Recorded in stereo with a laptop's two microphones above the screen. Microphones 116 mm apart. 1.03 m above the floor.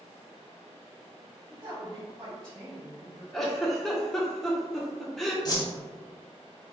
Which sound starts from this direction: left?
A whoosh, at 5.5 s.